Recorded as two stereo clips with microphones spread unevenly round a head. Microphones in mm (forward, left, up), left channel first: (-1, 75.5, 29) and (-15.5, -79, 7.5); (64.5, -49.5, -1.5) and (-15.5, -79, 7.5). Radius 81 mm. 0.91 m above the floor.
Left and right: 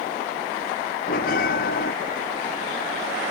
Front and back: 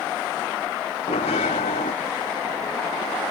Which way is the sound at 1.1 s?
50° left.